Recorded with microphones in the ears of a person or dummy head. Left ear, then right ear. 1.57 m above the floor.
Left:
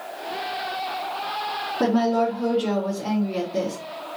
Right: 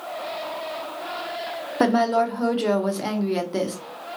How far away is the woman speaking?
About 0.5 m.